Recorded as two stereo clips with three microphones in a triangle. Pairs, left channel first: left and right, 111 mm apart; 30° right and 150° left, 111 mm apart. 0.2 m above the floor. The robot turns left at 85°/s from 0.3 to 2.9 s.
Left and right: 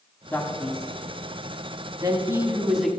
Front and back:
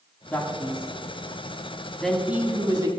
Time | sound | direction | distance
0.3 | a man speaking | 30° left | 1.3 m